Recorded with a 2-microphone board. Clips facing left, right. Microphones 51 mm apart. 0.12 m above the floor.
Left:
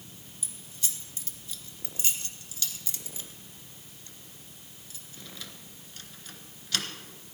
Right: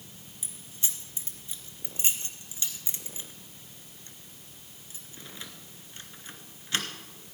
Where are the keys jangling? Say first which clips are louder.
Even; 25° right (ahead or behind), 1.1 m.